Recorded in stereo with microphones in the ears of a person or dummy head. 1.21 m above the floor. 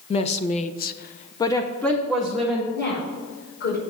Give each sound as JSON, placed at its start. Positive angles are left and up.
{"t": 0.1, "sound": "a woman speaking", "side_deg": 35, "distance_m": 0.9}
{"t": 2.7, "sound": "a woman speaking", "side_deg": 55, "distance_m": 5.0}